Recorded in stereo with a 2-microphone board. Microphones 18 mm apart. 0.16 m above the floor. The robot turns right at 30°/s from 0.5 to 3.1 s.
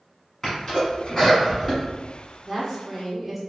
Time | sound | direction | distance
0.4 | a sneeze | 15° left (ahead or behind) | 1.3 m
2.5 | a woman speaking | 5° right (ahead or behind) | 1.6 m